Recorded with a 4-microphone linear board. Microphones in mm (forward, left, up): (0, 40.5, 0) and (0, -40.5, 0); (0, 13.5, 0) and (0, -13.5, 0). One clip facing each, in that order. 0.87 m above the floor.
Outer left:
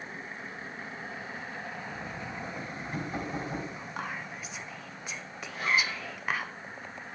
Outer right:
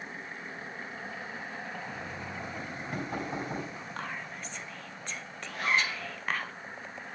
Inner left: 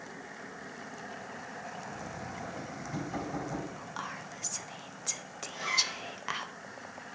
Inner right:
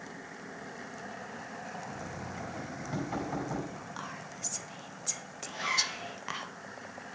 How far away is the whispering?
About 0.9 m.